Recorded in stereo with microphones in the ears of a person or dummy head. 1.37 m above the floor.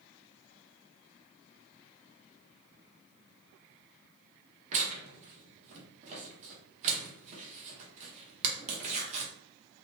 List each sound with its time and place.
4.7 s tearing paper: 40° right (ahead or behind), 0.9 m